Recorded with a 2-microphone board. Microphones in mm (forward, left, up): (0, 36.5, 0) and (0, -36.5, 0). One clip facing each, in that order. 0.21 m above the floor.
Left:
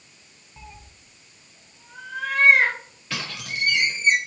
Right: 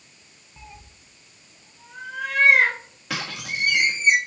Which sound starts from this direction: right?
A squeak, at 3.1 s.